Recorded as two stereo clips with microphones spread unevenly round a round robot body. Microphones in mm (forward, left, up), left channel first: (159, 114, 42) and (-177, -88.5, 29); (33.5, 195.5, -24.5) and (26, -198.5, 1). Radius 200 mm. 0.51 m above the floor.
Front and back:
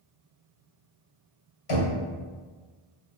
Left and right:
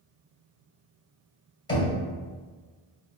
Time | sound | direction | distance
1.7 | knocking | 10° left | 2.0 m